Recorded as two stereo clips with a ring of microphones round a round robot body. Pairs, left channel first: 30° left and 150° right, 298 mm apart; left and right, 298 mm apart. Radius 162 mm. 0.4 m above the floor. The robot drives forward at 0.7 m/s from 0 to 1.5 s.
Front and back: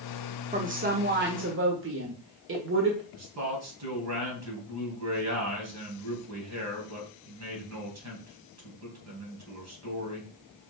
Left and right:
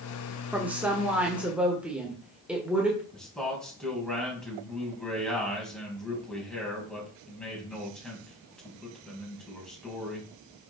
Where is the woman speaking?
165° right, 1.2 m; by 3.0 s 175° right, 1.6 m.